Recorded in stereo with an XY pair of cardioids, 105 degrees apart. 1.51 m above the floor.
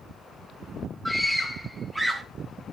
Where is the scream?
Straight ahead, 1.9 m; by 2.2 s 20° right, 1.5 m.